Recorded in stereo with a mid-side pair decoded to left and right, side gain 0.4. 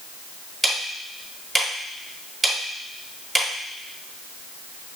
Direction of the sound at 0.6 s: 20° right.